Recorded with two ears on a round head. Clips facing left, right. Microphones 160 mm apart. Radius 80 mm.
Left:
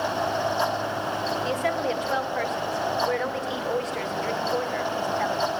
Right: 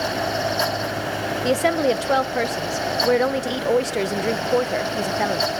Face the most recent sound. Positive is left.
turn(degrees=-60)  # may be behind; listen again after turning